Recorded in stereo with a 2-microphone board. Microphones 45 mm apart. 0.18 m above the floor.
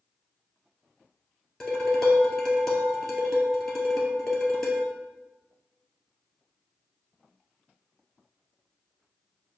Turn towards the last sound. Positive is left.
turn(degrees=10)  # may be behind; listen again after turning